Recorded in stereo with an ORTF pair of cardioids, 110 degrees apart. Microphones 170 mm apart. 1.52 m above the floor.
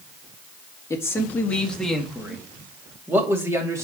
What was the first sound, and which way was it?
A man speaking, 15° left.